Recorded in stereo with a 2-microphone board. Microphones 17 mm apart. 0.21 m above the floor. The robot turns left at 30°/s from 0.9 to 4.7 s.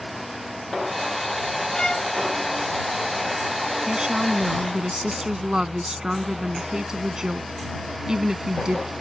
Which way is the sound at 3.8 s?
50° right (ahead or behind).